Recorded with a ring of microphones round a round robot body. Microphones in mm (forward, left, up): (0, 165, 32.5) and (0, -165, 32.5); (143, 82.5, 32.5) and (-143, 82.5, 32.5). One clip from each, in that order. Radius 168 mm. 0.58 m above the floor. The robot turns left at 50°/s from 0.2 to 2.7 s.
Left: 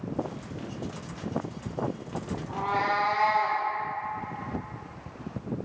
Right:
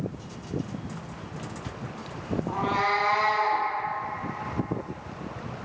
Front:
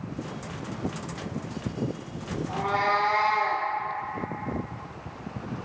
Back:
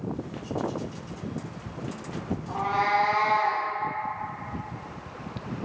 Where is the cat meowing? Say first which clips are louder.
Right 2 dB, even; 70° right, 1.3 m; by 3.6 s 80° right, 1.3 m.